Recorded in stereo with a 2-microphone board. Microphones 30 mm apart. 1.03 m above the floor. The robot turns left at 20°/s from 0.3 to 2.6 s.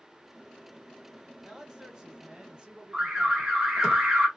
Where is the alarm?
15° right (ahead or behind), 1.4 m.